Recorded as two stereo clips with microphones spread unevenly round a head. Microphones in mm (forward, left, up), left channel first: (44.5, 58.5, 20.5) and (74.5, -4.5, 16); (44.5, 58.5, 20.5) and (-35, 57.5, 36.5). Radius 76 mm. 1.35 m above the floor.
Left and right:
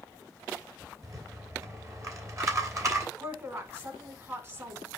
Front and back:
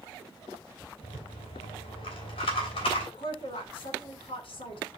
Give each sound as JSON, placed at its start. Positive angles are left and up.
{"t": 1.0, "sound": "a rattle", "azimuth_deg": -20, "distance_m": 3.0}
{"t": 3.2, "sound": "a woman speaking", "azimuth_deg": -15, "distance_m": 4.0}